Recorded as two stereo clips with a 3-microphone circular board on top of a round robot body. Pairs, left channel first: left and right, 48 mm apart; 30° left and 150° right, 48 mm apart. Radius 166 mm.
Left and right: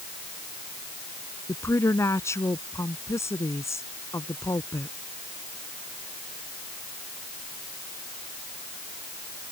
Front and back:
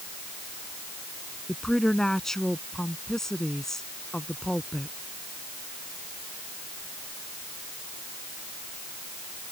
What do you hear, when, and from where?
1.5 s a woman speaking: 110° left